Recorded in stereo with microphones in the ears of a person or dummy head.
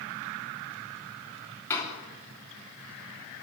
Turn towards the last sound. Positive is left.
turn(degrees=15)  # may be behind; listen again after turning